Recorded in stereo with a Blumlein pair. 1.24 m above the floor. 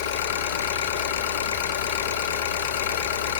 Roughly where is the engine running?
Ahead left.